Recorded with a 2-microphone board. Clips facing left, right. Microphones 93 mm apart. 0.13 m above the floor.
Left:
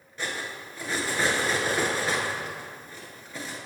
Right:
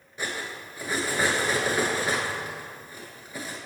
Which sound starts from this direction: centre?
Cutlery clinking, at 0.2 s.